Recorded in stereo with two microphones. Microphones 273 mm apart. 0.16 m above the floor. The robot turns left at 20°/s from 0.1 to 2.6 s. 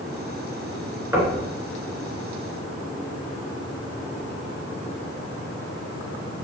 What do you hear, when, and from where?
1.1 s knocking: 10° right (ahead or behind), 1.7 m; by 1.4 s 5° right (ahead or behind), 1.7 m